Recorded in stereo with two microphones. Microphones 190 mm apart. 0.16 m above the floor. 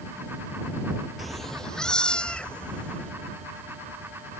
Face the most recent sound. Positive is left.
turn(degrees=5)  # may be behind; listen again after turning